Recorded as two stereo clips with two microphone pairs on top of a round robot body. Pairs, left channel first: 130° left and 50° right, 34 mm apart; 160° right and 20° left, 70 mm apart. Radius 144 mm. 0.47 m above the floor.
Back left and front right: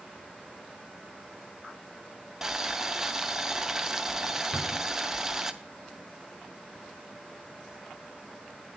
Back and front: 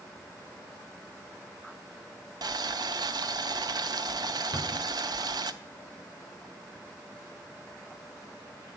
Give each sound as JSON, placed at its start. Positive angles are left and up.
{"t": 2.4, "sound": "boiling", "azimuth_deg": 25, "distance_m": 0.7}
{"t": 4.5, "sound": "a cupboard door", "azimuth_deg": -5, "distance_m": 3.0}